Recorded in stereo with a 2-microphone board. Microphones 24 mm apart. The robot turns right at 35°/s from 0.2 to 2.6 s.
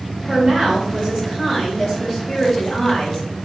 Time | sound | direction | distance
0.3 | a woman speaking | 45° right | 2.5 m